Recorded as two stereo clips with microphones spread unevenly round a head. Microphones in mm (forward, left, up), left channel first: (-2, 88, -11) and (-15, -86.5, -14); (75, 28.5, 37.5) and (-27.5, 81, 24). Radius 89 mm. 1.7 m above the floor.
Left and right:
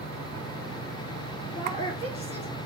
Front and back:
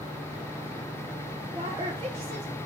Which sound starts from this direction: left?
A woman speaking, at 1.5 s.